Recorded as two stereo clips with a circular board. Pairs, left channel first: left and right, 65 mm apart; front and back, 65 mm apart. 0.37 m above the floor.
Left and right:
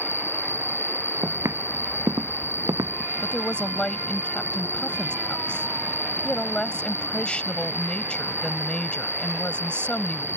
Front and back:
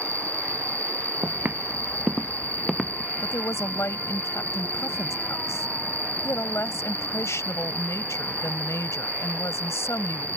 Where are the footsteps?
125° right; by 3.1 s 80° right.